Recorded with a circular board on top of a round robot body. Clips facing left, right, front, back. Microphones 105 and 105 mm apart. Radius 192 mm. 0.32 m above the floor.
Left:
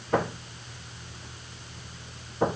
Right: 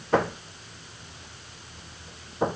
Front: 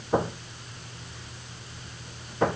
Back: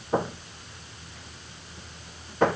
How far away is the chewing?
No chewing in this recording.